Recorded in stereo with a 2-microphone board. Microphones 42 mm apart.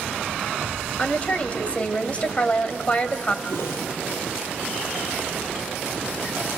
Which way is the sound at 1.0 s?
30° left (ahead or behind).